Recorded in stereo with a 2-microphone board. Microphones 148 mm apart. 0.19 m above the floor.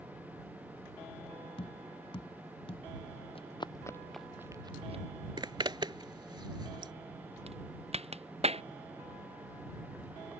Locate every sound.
1.6 s tapping: 40° left (ahead or behind)
3.4 s running footsteps: 40° left (ahead or behind); by 5.0 s 45° right (ahead or behind)
5.4 s a zipper: 30° right (ahead or behind)
7.5 s a crack: 45° right (ahead or behind)